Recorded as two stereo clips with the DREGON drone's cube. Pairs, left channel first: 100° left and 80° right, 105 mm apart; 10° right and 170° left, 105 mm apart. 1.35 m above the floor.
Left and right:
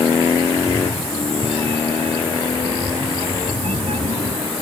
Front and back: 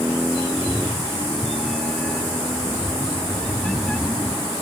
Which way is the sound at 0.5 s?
100° right.